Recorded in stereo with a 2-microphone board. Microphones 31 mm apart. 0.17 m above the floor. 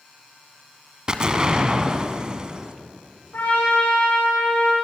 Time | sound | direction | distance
1.1 | an explosion | 30° right (ahead or behind) | 1.4 m
3.3 | a trumpet | 85° left | 7 m